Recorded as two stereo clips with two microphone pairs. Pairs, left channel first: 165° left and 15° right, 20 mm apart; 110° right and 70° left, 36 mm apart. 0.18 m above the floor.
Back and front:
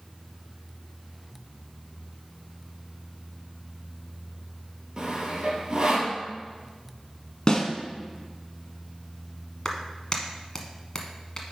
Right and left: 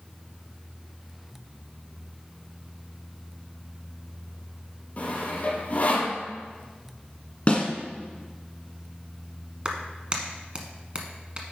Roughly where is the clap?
Behind left.